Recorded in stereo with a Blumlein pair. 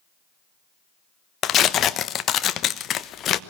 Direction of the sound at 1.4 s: 30° left.